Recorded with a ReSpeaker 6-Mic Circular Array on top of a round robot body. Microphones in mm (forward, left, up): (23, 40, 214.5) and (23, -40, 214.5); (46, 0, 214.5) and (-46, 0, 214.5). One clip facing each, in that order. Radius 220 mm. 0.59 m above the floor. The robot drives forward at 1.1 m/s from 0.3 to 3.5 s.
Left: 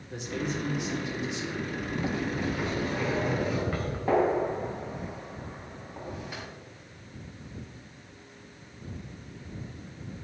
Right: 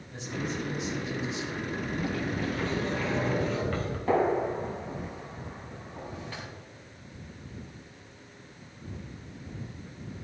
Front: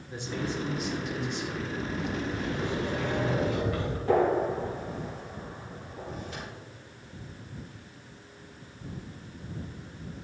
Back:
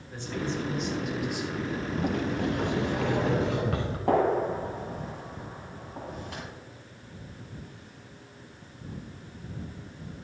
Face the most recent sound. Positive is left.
turn(degrees=165)